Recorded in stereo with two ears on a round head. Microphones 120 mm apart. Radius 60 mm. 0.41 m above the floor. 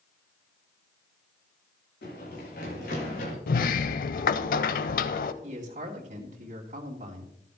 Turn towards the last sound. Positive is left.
turn(degrees=-55)  # may be behind; listen again after turning